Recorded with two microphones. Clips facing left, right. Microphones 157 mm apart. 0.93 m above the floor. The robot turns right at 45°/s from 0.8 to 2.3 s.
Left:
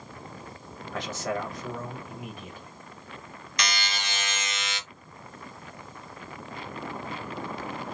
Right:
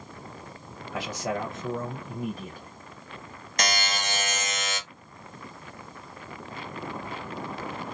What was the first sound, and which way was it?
A man speaking, 170° right.